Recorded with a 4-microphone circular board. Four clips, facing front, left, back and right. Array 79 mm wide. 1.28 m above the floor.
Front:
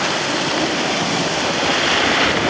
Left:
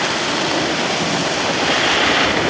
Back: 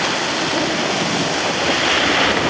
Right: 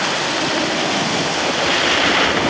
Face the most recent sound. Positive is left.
No sound to turn to.